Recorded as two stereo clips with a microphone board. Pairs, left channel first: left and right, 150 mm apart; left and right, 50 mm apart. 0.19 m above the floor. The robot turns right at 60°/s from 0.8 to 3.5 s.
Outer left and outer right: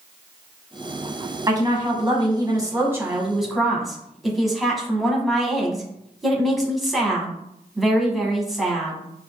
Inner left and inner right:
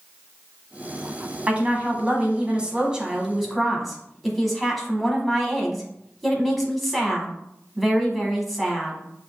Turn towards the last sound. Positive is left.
turn(degrees=0)  # may be behind; listen again after turning